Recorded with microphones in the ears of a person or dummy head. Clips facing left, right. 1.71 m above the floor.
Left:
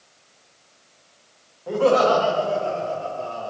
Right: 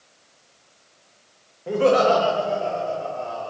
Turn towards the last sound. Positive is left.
turn(degrees=-35)  # may be behind; listen again after turning